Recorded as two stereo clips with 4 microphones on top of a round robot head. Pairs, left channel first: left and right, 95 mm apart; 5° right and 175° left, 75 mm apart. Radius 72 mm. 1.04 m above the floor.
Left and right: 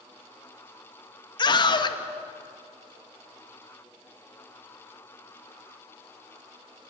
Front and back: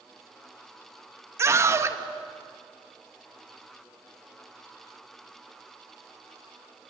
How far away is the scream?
About 1.8 m.